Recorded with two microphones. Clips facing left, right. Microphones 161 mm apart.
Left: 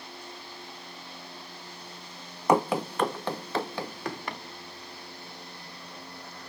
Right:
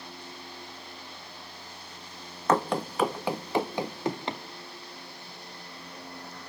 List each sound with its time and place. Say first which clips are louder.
2.5 s running footsteps: left 2 dB; 15° left (ahead or behind), 0.8 m; by 4.4 s 25° right (ahead or behind), 2.0 m